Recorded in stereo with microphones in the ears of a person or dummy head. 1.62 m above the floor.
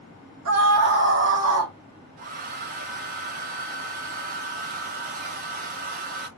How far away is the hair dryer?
About 1.4 m.